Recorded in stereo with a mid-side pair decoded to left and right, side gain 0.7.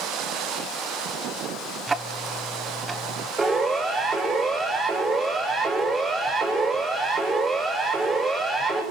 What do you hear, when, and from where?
1.9 s ticking: 15° right, 1.1 m
3.4 s a siren: 15° right, 9 m